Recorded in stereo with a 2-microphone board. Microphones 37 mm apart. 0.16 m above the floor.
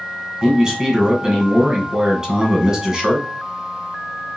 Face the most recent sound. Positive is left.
turn(degrees=-20)  # may be behind; listen again after turning